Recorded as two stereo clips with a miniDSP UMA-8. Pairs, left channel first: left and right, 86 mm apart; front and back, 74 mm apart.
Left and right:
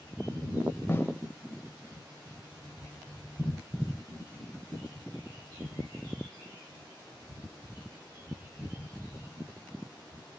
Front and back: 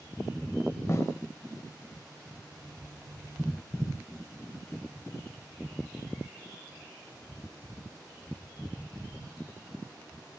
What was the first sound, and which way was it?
A snare drum, 35° left.